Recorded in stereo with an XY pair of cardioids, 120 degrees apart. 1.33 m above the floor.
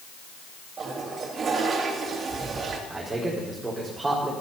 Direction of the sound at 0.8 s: 40° right.